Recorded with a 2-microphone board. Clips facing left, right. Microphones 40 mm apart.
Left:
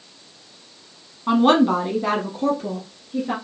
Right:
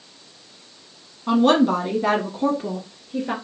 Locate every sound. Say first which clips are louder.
1.3 s a woman speaking: left 1 dB; 25° left (ahead or behind), 1.1 m; by 3.3 s 25° right (ahead or behind), 1.6 m